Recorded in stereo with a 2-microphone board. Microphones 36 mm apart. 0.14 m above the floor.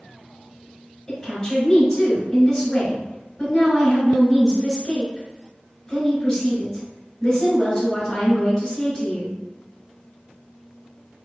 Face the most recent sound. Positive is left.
turn(degrees=15)  # may be behind; listen again after turning